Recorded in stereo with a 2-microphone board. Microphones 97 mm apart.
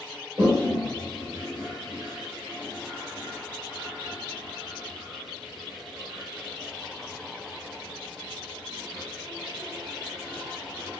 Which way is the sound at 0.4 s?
30° right (ahead or behind).